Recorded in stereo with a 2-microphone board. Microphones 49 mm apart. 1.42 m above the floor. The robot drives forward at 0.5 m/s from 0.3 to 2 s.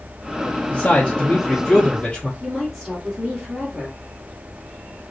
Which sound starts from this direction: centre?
A woman speaking, at 2.4 s.